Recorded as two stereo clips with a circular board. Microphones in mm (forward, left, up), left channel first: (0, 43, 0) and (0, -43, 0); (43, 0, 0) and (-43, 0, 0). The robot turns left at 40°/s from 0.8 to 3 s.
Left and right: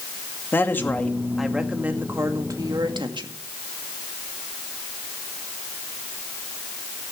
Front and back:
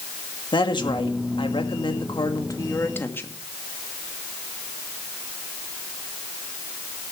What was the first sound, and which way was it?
A woman speaking, 25° left.